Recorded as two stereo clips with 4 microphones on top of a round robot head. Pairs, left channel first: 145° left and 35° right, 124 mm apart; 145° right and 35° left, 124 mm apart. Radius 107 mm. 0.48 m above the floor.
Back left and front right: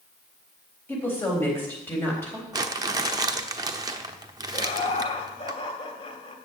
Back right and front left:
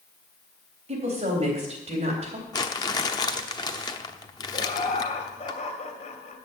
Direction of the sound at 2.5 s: 90° right.